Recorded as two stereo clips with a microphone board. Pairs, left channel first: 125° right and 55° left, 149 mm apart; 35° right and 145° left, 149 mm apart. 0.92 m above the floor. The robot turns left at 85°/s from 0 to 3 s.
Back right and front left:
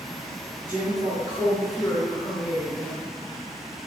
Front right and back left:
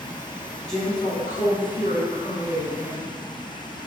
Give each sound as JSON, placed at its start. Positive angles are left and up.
{"t": 0.7, "sound": "a woman speaking", "azimuth_deg": 55, "distance_m": 1.2}